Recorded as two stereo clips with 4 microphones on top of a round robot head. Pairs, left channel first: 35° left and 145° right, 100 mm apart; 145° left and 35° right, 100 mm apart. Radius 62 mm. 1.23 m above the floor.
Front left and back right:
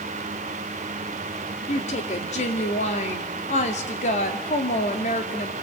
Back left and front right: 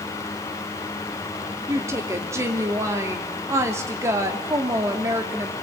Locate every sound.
1.7 s a woman speaking: 30° left, 2.5 m